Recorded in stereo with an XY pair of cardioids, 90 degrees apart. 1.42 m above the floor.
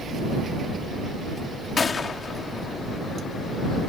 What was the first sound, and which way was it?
A gunshot, 45° left.